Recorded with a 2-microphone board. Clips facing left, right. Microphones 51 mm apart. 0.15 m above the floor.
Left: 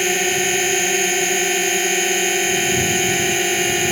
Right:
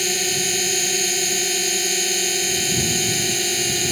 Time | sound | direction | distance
0.0 | a drone | 35° left (ahead or behind) | ?